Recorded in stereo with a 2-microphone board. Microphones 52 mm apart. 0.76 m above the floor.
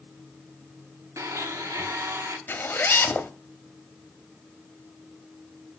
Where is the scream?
I don't hear a scream.